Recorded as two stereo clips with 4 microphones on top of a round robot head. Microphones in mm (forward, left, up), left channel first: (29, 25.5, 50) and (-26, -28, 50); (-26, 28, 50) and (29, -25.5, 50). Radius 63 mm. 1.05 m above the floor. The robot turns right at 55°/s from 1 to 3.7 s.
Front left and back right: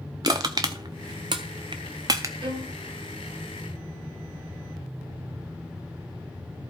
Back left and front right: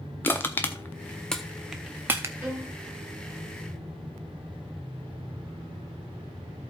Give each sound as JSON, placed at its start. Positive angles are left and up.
{"t": 0.2, "sound": "crushing", "azimuth_deg": -165, "distance_m": 0.5}
{"t": 2.4, "sound": "a violin", "azimuth_deg": -115, "distance_m": 2.0}